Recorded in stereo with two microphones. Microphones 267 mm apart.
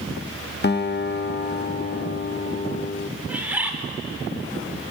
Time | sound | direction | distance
0.6 | a guitar | 40° left (ahead or behind) | 0.5 m
3.3 | a bird | 5° right (ahead or behind) | 1.8 m